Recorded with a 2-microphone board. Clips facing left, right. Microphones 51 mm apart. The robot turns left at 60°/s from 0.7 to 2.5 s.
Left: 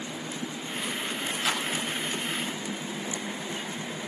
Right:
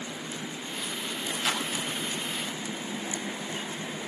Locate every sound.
1.4 s a clap: 5° left (ahead or behind), 5.5 m; by 1.7 s 10° right (ahead or behind), 5.5 m